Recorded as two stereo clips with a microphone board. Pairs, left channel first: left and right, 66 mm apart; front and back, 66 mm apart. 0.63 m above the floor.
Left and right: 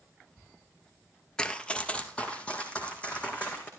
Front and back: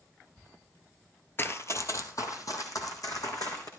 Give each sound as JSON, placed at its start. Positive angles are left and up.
{"t": 1.4, "sound": "running footsteps", "azimuth_deg": 20, "distance_m": 0.7}